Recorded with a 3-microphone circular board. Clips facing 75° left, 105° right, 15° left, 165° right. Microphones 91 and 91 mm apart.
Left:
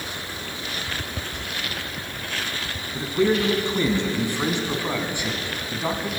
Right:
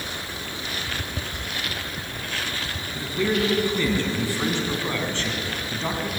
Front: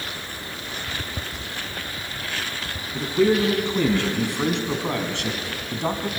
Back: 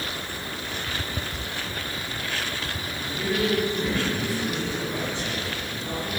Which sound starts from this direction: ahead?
A man speaking, at 2.9 s.